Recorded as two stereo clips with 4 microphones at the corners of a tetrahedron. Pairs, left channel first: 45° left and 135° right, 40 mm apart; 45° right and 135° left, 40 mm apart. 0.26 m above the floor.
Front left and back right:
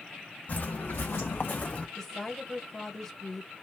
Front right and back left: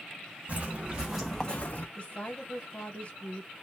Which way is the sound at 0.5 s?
85° left.